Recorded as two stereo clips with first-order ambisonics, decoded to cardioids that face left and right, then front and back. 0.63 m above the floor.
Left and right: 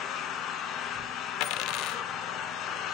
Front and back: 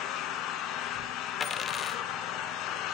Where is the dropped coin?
70° left, 0.7 m.